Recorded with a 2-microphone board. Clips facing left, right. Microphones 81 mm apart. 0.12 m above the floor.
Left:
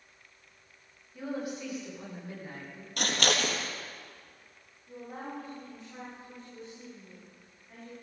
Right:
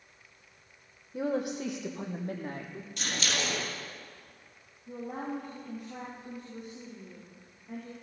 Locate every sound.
1.1 s a woman speaking: 75° right (ahead or behind), 4.5 m; by 2.9 s 60° right (ahead or behind), 4 m
3.0 s scissors: 65° left (ahead or behind), 3 m
4.9 s a woman speaking: 55° right (ahead or behind), 6 m